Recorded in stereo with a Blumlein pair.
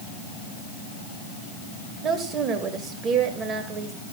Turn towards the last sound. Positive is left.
turn(degrees=-25)